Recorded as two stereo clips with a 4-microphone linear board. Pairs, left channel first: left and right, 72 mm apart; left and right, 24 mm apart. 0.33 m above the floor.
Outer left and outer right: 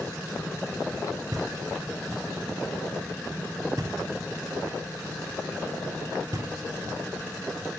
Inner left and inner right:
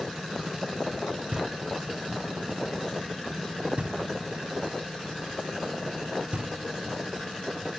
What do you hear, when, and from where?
1.3 s knocking: 60° right (ahead or behind), 1.4 m